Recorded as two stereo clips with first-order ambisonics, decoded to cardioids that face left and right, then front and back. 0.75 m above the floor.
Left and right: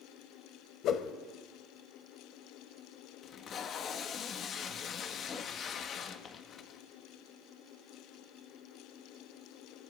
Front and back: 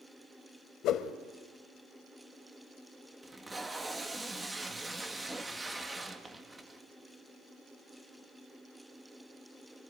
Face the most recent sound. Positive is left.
turn(degrees=110)